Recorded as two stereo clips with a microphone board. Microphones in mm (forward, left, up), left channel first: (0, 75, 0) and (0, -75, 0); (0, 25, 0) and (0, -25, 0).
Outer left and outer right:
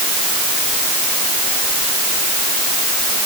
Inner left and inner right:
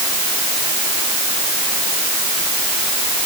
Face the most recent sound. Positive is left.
No sound to turn to.